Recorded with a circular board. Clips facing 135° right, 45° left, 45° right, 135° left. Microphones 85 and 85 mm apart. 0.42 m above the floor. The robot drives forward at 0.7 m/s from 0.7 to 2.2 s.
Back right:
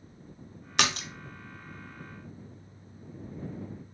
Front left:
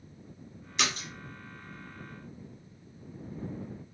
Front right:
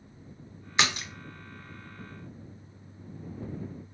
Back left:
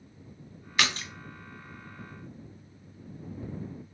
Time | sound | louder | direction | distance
0.8 | a splash | back right 3 dB, front right 1 dB | 115° right | 0.7 m